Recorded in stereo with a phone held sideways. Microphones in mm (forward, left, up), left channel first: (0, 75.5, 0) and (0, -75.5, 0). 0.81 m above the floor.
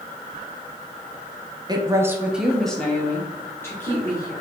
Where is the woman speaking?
25° right (ahead or behind), 0.6 m; by 4.3 s 20° left (ahead or behind), 1.7 m.